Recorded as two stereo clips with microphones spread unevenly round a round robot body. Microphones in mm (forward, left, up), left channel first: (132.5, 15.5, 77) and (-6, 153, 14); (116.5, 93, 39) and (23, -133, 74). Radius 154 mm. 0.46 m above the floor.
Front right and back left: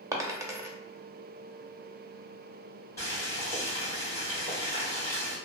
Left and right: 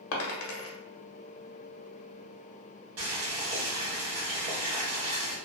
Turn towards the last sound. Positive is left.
turn(degrees=-130)